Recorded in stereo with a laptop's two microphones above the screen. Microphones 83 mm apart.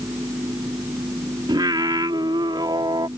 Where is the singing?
65° right (ahead or behind).